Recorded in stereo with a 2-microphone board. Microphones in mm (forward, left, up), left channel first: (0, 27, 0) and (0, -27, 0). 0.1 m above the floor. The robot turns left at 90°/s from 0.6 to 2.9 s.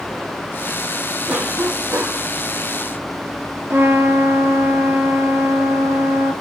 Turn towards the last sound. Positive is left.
turn(degrees=-50)  # may be behind; listen again after turning